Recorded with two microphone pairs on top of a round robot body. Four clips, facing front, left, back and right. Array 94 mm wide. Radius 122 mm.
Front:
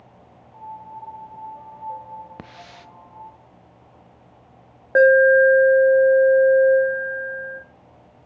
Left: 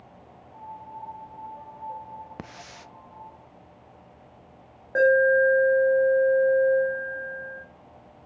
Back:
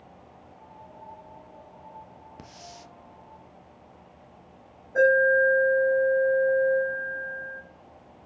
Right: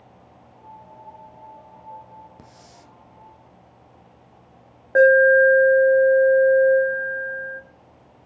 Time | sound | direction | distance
0.5 | a piano | 35° left | 1.5 m
2.4 | a hiss | 45° left | 0.6 m
5.0 | an alarm | 15° right | 1.9 m